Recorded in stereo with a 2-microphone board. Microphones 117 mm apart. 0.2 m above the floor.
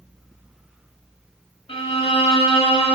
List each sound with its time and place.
1.7 s a violin: 55° left (ahead or behind), 0.9 m